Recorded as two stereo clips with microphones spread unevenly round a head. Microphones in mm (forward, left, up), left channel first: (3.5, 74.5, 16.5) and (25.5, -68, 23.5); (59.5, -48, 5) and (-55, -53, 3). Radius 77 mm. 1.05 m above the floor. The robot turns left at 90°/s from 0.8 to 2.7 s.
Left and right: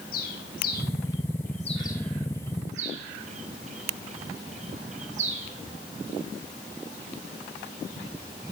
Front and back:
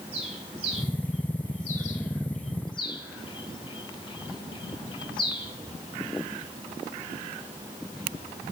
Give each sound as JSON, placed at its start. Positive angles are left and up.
{"t": 0.1, "sound": "a bird", "azimuth_deg": 130, "distance_m": 4.0}